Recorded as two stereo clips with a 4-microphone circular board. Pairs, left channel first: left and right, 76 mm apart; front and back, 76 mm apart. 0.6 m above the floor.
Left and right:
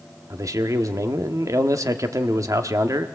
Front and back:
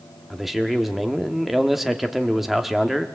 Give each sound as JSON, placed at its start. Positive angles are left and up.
{"t": 0.3, "sound": "a man speaking", "azimuth_deg": -90, "distance_m": 1.1}